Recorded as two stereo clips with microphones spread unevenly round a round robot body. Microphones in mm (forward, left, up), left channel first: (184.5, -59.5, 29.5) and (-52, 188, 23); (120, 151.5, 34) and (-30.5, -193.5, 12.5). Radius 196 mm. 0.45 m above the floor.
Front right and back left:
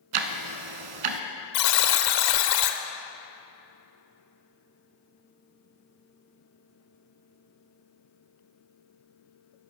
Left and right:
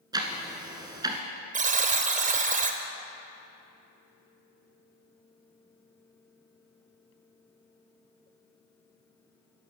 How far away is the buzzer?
About 1.1 m.